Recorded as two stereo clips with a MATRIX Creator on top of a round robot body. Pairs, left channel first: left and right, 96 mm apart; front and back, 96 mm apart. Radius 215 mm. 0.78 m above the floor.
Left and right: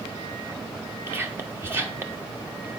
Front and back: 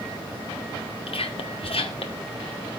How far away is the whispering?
About 1.6 m.